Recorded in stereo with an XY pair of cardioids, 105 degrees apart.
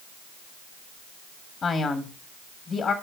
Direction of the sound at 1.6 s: 45° left.